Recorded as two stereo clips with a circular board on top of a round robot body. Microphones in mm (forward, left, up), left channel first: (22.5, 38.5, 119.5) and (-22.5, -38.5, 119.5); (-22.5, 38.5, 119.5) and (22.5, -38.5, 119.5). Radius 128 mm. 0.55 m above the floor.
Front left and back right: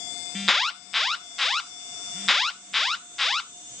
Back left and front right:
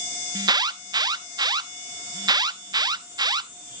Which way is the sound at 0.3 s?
30° right.